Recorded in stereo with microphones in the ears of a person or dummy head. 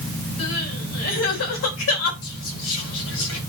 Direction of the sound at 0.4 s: 75° left (ahead or behind).